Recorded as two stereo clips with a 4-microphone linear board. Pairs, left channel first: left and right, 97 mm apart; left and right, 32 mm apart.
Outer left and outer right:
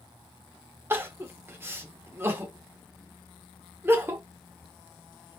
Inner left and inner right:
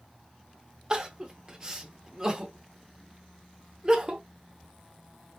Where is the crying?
25° right (ahead or behind), 0.6 m.